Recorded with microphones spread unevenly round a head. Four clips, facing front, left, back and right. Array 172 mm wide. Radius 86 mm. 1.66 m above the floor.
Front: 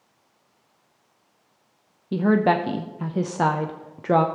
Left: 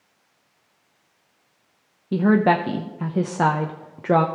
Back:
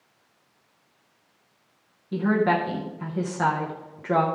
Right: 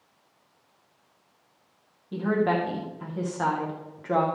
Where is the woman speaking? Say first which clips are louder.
Left 7 dB, front 3 dB; 65° left, 0.6 m.